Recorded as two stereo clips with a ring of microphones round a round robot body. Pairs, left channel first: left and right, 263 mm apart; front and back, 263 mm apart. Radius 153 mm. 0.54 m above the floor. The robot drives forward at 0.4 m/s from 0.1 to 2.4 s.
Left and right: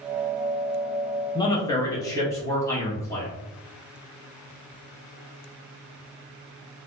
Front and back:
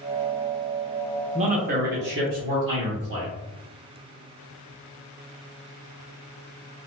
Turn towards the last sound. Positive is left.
turn(degrees=165)